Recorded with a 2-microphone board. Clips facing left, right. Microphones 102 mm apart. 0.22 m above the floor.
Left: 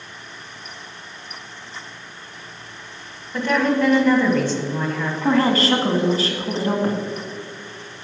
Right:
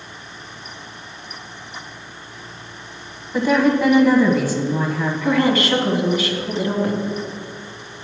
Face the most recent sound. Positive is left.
turn(degrees=35)  # may be behind; listen again after turning